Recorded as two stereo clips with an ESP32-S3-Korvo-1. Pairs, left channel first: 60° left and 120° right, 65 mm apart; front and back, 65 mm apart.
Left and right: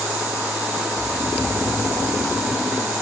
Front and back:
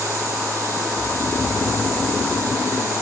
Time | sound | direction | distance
0.9 | snoring | straight ahead | ?